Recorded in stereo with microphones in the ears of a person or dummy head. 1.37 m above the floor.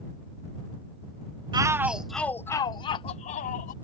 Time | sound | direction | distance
1.5 | a shout | 20° right (ahead or behind) | ?